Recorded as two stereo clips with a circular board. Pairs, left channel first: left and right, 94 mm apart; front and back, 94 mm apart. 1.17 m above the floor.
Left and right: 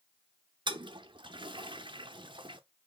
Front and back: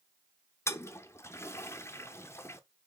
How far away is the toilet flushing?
About 0.6 m.